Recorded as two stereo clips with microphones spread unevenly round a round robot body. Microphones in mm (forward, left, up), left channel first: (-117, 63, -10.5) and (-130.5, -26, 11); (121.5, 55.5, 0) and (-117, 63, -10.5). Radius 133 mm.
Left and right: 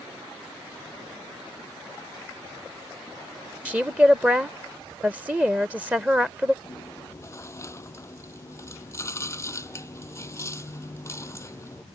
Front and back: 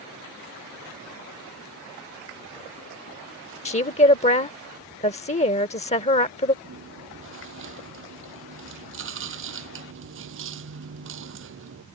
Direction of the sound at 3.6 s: 10° right.